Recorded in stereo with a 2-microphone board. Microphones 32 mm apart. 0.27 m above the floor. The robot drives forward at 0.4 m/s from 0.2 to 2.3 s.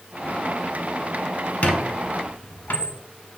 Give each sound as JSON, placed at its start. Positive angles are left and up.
{"t": 1.6, "sound": "a squeak", "side_deg": 55, "distance_m": 0.7}